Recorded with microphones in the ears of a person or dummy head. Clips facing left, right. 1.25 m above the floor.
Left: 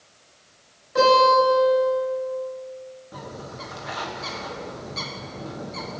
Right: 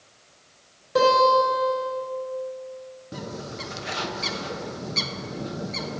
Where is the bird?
35° right (ahead or behind), 0.8 m.